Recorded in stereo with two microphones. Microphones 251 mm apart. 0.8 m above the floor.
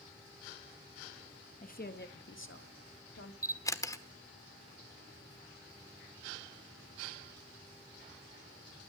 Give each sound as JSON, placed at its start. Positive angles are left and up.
{"t": 1.6, "sound": "a woman speaking", "side_deg": 30, "distance_m": 1.1}
{"t": 3.4, "sound": "a camera shutter", "side_deg": 15, "distance_m": 1.2}